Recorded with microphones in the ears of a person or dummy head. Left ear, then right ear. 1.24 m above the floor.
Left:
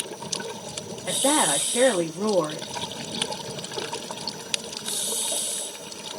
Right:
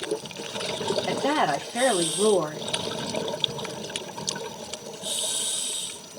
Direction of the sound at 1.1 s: Centre (ahead or behind).